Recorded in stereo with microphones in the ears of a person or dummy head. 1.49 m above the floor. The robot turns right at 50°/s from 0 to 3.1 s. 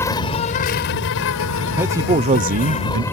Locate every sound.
0.0 s an insect: 15° left; by 3.1 s 170° left
1.7 s a man speaking: straight behind; by 3.0 s 110° right